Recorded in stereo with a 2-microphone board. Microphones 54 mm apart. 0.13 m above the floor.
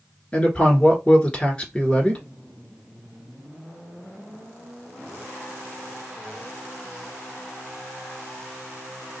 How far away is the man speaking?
About 1.4 m.